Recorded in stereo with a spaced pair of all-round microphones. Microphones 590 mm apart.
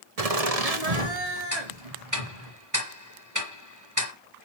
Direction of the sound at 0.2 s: 75° right (ahead or behind).